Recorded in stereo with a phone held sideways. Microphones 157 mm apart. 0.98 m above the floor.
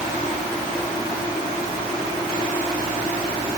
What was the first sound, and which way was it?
Only background noise.